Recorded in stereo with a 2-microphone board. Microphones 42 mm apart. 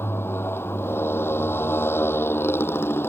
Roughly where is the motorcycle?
Left.